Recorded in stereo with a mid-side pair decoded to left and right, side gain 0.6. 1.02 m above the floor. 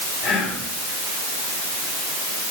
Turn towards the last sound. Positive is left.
turn(degrees=55)